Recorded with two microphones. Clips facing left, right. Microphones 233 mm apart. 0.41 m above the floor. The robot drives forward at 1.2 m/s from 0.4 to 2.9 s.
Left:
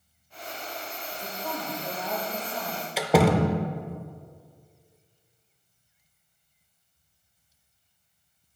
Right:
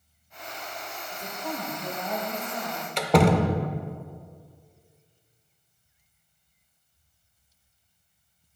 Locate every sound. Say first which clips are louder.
1.1 s a woman speaking: right 1 dB; 5° left (ahead or behind), 1.0 m; by 2.9 s centre (ahead or behind), 3 m
3.0 s a door slam: even; 5° left (ahead or behind), 0.6 m